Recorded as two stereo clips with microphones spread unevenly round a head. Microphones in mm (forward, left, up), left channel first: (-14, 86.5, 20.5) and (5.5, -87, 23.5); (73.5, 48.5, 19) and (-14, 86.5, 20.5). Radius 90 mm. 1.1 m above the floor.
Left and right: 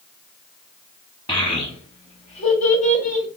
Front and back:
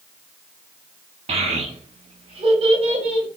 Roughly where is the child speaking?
Behind.